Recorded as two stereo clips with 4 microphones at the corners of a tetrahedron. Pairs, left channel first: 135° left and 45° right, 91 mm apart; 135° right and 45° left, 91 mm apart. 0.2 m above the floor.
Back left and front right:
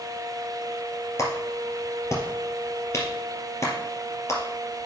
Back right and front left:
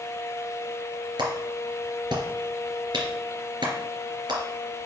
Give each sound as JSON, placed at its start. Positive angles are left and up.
{"t": 1.2, "sound": "a clap", "azimuth_deg": 80, "distance_m": 3.0}